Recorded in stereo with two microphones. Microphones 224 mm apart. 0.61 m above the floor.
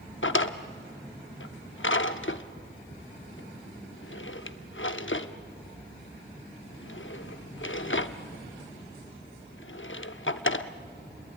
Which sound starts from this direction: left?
A drawer, at 0.2 s.